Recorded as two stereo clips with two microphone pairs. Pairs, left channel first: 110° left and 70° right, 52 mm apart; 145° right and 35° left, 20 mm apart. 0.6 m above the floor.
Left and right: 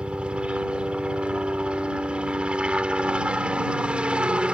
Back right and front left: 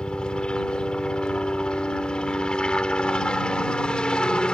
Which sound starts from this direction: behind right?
A helicopter, at 0.0 s.